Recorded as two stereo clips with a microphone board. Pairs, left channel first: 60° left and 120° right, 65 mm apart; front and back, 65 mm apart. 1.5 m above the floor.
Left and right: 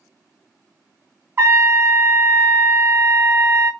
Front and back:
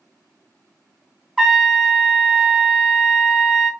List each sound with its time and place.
1.4 s a trumpet: 90° right, 0.8 m